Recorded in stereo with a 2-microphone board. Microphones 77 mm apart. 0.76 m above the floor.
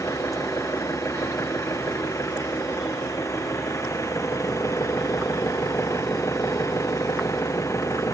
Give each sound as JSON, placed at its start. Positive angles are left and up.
{"t": 0.0, "sound": "an engine running", "side_deg": 40}